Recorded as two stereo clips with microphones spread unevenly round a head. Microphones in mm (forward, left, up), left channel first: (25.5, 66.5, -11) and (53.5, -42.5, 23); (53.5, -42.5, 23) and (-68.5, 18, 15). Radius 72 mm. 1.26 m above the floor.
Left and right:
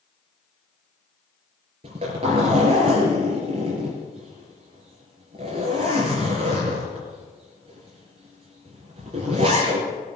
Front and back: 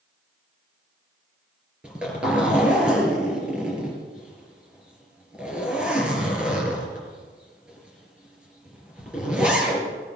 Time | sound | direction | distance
1.8 | a zipper | 125° right | 4 m